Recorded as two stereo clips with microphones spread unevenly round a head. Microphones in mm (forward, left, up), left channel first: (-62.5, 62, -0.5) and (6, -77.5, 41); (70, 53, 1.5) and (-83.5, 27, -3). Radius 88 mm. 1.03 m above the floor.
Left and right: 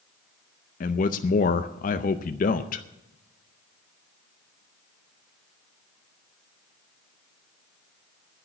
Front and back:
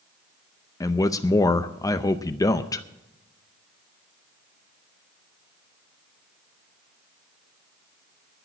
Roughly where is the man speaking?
Left.